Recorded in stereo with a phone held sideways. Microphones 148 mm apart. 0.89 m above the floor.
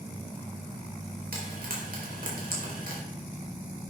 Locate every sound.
1.3 s frying: 80° right, 4 m